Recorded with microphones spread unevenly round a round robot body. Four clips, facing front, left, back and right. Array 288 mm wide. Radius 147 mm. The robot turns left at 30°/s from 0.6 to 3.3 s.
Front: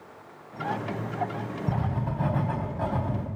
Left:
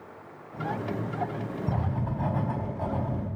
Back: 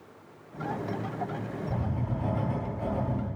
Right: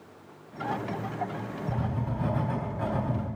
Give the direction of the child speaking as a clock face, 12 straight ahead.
I don't hear a child speaking.